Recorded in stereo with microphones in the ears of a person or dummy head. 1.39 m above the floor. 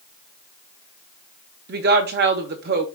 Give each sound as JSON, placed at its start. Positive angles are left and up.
{"t": 1.7, "sound": "a woman speaking", "side_deg": -50, "distance_m": 0.6}